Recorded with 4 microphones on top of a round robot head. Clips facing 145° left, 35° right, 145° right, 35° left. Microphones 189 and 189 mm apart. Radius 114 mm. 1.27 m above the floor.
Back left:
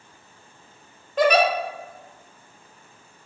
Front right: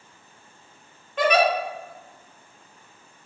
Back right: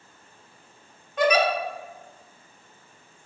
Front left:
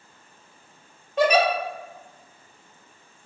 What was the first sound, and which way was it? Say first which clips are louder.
A giggle: back left 2 dB, front left 2 dB; 95° left.